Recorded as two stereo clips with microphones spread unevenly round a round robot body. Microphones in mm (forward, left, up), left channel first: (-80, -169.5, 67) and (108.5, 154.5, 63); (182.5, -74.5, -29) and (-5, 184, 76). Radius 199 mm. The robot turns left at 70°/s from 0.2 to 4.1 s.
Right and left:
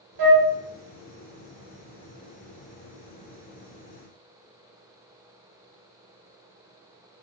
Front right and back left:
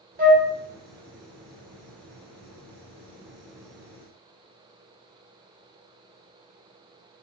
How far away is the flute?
About 0.9 m.